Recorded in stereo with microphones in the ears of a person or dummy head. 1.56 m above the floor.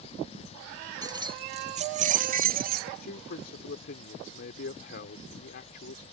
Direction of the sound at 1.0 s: 15° right (ahead or behind).